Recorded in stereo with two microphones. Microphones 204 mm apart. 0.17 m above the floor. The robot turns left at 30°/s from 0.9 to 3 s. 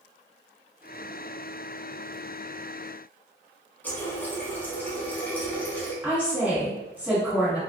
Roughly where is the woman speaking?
Centre.